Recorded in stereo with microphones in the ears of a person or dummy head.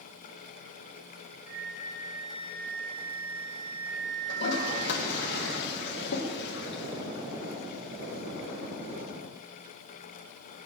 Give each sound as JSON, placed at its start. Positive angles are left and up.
{"t": 1.5, "sound": "a flute", "side_deg": -60, "distance_m": 3.5}
{"t": 4.3, "sound": "a toilet flushing", "side_deg": 65, "distance_m": 2.0}